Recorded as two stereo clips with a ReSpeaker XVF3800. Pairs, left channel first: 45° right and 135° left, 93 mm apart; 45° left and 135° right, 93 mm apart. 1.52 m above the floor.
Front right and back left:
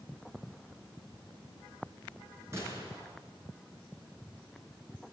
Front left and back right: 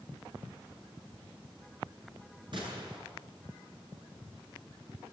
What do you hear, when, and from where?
2.5 s a gunshot: 165° right, 7 m